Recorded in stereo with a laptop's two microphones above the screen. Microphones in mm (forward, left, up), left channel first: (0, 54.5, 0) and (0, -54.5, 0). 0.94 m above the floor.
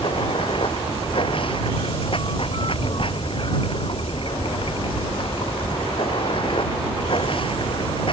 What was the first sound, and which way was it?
Running water, 55° left (ahead or behind).